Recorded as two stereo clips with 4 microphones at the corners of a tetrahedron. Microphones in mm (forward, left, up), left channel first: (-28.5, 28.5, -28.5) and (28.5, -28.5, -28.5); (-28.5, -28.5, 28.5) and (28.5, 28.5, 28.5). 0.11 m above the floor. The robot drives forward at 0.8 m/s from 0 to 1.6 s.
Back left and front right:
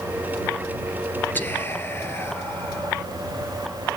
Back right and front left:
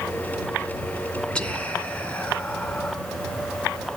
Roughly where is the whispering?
Behind.